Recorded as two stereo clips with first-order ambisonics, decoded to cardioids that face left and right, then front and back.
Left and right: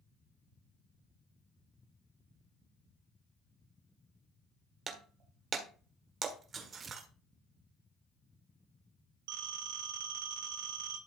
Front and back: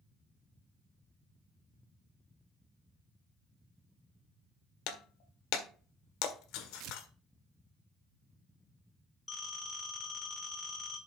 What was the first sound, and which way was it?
Breaking glass, 25° right.